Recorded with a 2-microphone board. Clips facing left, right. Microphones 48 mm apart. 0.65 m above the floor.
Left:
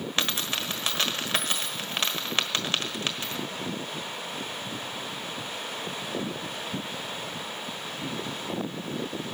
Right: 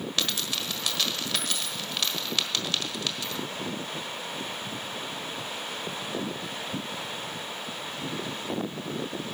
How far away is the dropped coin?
About 1.4 m.